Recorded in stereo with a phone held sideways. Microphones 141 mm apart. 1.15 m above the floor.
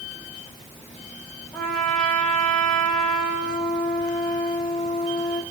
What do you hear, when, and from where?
1.5 s a trumpet: 5° left (ahead or behind), 4.5 m